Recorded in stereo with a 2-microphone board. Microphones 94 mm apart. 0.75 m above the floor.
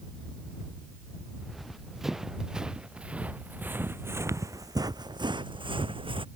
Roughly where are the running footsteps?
Centre.